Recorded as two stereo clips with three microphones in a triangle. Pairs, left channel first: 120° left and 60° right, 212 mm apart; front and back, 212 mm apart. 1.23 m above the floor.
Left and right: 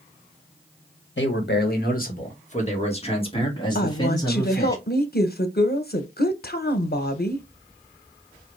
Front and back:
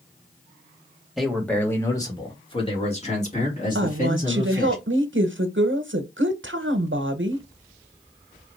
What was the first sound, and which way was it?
A man speaking, 90° left.